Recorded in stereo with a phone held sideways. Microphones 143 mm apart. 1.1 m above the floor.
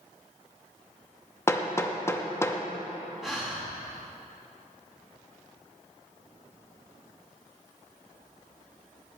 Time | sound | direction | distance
1.5 | hammering | 15° left (ahead or behind) | 0.6 m
3.2 | breathing | 5° right (ahead or behind) | 1.5 m